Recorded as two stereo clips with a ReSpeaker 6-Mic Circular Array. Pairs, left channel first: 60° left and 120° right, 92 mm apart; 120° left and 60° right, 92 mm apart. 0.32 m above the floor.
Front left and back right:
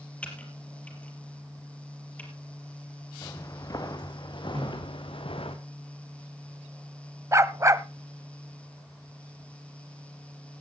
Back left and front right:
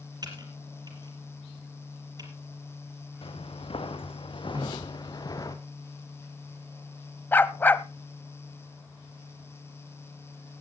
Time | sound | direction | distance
0.2 | typing on a keyboard | 15° right | 4 m
3.2 | footsteps | 115° left | 3 m
4.5 | a snare drum | 110° right | 6 m
7.3 | a dog barking | 175° right | 0.7 m